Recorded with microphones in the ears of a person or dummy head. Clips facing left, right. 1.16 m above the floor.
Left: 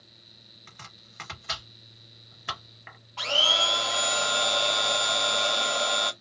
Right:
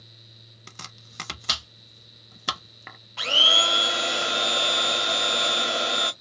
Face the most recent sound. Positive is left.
turn(degrees=-20)  # may be behind; listen again after turning